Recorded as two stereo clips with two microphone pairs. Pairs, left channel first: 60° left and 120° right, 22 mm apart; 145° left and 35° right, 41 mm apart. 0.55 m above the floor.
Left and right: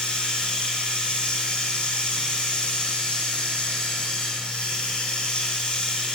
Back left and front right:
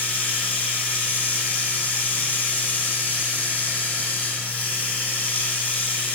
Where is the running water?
90° left, 2.5 m.